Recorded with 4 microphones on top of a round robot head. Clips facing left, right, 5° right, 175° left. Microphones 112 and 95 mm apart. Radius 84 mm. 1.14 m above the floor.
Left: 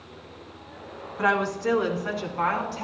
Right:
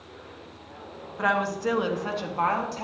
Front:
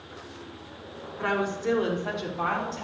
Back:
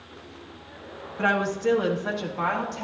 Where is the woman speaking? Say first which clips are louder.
Left 1 dB, back 3 dB; straight behind, 1.7 m; by 2.8 s 140° right, 2.5 m.